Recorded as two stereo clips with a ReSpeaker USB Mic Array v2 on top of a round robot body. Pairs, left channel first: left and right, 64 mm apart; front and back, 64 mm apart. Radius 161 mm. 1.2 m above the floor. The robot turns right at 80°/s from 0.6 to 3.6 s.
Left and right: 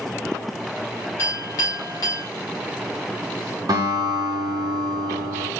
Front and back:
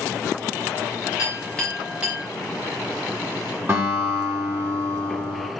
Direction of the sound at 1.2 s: 40° left.